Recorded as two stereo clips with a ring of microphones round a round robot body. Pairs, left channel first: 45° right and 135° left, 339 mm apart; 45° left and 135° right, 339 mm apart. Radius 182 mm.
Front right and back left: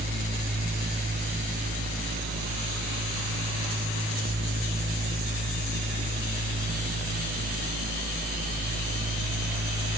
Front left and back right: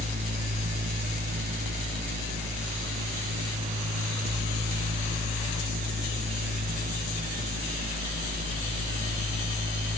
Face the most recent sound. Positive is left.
No sound to turn to.